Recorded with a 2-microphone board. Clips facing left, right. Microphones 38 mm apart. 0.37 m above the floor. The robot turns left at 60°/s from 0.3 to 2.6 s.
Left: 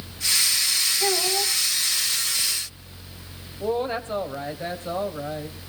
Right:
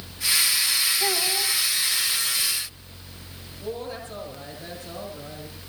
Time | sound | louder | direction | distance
1.0 | a child speaking | left 1 dB | 175° right | 2 m
3.6 | a woman speaking | left 8 dB | 50° left (ahead or behind) | 2.5 m